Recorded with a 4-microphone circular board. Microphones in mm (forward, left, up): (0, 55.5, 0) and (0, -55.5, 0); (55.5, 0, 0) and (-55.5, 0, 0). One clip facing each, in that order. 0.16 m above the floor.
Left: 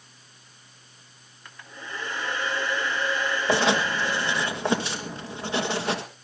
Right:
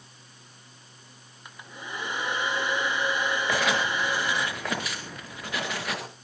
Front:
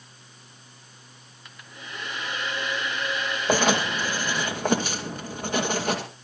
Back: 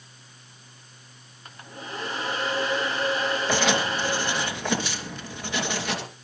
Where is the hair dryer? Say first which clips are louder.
Even, back 5 dB; 155° right, 1.7 m.